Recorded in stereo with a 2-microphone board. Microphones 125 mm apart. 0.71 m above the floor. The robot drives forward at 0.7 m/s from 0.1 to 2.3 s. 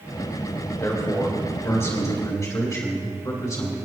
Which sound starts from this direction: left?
A man speaking, at 0.8 s.